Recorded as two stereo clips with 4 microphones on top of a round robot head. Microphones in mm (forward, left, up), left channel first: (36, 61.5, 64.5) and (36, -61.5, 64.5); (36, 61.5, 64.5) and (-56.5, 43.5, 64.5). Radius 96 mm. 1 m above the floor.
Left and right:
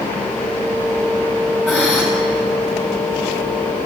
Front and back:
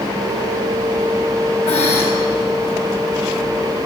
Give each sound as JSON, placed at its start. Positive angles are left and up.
{"t": 1.7, "sound": "breathing", "azimuth_deg": -5, "distance_m": 7.0}